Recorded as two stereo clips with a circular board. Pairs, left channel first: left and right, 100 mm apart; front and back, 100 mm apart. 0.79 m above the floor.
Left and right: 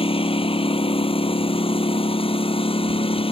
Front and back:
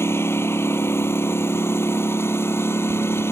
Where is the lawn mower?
65° left.